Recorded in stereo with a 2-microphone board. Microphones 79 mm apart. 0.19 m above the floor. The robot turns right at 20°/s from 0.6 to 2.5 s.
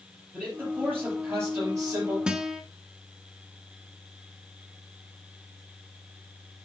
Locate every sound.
0.3 s a man speaking: 160° right, 5 m; by 2.2 s 130° right, 5 m
2.3 s a guitar: 10° right (ahead or behind), 0.8 m; by 2.6 s 5° right (ahead or behind), 0.8 m